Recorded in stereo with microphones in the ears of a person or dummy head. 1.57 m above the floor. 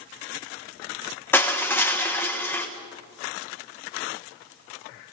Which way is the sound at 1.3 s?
10° left (ahead or behind).